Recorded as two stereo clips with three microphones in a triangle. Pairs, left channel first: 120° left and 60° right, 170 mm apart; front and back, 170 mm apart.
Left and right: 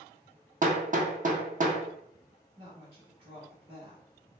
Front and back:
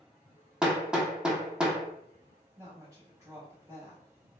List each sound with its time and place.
0.6 s hammering: 95° right, 0.6 m
2.6 s a woman speaking: 115° right, 1.4 m